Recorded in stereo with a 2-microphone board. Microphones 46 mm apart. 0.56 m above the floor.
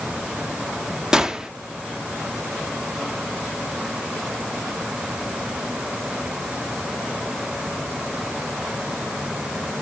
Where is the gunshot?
15° right (ahead or behind), 0.5 m.